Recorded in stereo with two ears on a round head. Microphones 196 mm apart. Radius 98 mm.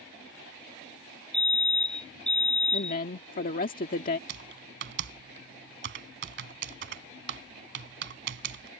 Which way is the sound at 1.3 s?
5° left (ahead or behind).